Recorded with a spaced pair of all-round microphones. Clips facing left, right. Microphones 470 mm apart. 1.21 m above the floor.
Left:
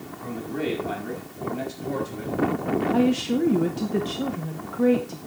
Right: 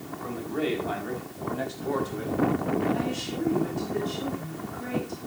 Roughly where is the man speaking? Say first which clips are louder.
Left 1 dB; left.